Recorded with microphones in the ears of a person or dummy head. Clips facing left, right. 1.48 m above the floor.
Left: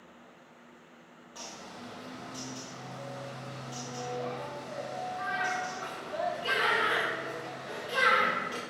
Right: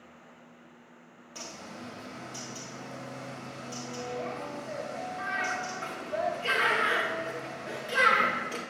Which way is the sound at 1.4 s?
30° right (ahead or behind).